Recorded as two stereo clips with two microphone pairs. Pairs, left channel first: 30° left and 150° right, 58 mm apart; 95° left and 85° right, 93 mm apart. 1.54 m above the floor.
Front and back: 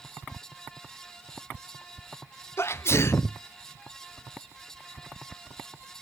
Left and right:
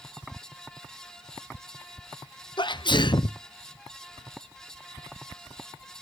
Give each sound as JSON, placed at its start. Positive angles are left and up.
{"t": 2.6, "sound": "a sneeze", "azimuth_deg": 65, "distance_m": 0.7}